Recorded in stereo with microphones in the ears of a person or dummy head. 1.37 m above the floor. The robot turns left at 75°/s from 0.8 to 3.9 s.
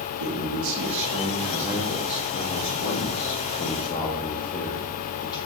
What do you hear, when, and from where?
0.2 s a man speaking: 105° right, 0.8 m; by 5.4 s 25° left, 0.8 m